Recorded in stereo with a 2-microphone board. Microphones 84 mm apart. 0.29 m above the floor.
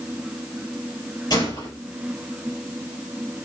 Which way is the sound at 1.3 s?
45° left (ahead or behind).